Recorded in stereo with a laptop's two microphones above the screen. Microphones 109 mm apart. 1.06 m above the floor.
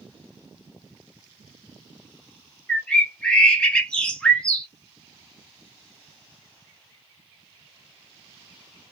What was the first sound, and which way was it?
A bird, 10° left (ahead or behind).